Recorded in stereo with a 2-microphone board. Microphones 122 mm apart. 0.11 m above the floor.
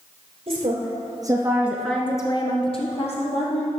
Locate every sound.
0.5 s a woman speaking: 55° right (ahead or behind), 2.5 m; by 3.7 s 65° left (ahead or behind), 3 m